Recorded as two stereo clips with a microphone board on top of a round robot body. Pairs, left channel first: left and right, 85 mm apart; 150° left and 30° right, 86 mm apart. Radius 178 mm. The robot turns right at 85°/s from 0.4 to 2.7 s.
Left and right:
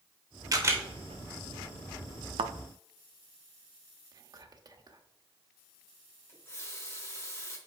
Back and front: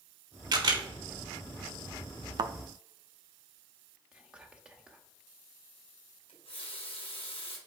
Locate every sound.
0.5 s a camera shutter: 50° right, 2.5 m; by 0.8 s 25° right, 2.5 m
2.4 s a thud: 70° right, 0.5 m; by 2.5 s 55° right, 0.5 m
4.1 s whispering: 105° right, 1.5 m
6.3 s a running tap: 150° left, 1.6 m